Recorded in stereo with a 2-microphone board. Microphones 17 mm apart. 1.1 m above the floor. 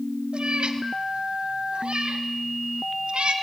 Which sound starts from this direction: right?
A cat meowing, at 0.3 s.